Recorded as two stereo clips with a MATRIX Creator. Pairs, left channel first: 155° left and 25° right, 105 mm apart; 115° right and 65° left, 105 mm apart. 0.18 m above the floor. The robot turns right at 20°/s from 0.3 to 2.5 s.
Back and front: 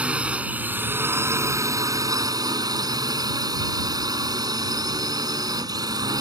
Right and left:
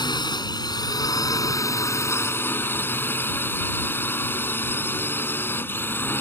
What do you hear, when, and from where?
0.0 s a drone: 95° right; by 6.2 s 50° right